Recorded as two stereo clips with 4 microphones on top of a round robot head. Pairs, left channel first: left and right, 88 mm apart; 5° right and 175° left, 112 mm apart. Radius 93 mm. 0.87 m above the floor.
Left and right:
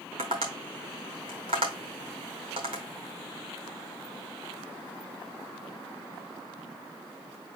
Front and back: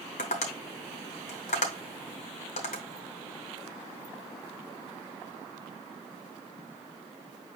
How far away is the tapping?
About 0.9 m.